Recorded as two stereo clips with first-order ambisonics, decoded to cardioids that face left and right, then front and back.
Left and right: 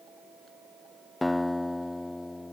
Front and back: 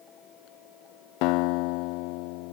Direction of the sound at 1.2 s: 5° left.